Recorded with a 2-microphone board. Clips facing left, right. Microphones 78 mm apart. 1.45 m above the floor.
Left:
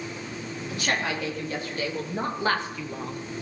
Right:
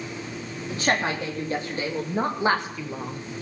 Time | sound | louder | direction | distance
0.7 | a woman speaking | right 4 dB | 35° right (ahead or behind) | 3.5 m